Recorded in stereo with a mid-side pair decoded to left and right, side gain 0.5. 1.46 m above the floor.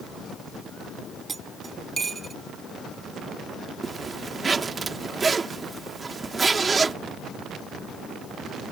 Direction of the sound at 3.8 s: 30° right.